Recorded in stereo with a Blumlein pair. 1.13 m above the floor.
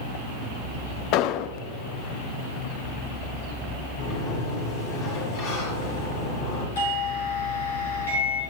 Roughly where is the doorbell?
Ahead left.